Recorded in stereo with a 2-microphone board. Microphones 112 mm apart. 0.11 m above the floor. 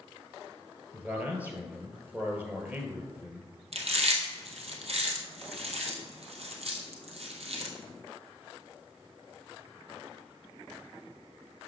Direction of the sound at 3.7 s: 65° right (ahead or behind).